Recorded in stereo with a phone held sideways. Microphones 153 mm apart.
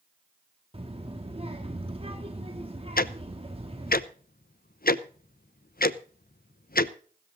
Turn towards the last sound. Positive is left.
turn(degrees=75)  # may be behind; listen again after turning